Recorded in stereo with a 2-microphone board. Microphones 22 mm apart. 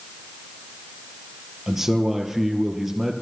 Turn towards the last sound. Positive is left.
turn(degrees=-10)  # may be behind; listen again after turning